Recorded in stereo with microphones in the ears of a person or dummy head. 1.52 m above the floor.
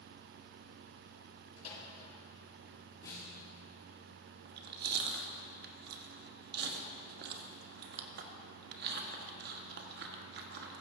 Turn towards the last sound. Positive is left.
turn(degrees=-60)  # may be behind; listen again after turning